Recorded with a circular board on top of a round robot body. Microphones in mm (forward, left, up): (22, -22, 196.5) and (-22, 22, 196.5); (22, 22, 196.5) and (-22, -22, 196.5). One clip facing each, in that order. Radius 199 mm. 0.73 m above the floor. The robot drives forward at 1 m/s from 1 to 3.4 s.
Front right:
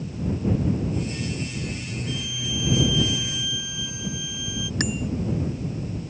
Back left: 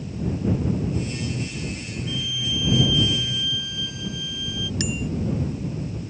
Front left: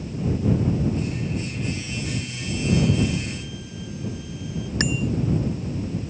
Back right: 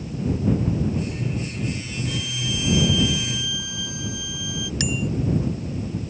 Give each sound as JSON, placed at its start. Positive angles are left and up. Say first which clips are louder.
{"t": 2.1, "sound": "a violin", "louder": "back left 3 dB, back right 1 dB", "azimuth_deg": -115}
{"t": 4.8, "sound": "a bicycle bell", "louder": "front right 2 dB, front left 2 dB", "azimuth_deg": -5}